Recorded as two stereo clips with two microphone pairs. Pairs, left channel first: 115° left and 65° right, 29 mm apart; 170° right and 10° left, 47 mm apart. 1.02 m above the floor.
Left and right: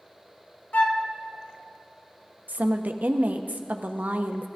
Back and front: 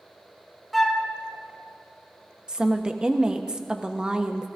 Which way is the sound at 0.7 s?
100° left.